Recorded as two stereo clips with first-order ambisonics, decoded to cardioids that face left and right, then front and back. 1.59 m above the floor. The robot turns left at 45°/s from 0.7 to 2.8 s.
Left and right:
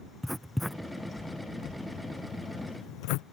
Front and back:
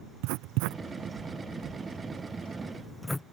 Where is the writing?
Straight behind; by 3.2 s 85° left.